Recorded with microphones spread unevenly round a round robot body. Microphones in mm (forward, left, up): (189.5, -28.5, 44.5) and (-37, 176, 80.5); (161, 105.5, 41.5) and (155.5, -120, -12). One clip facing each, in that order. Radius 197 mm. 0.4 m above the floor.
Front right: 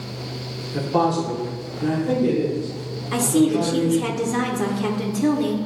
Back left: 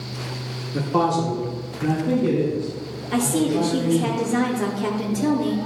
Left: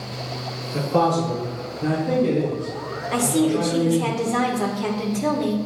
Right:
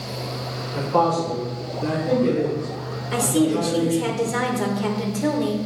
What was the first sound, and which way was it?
A man speaking, 50° left.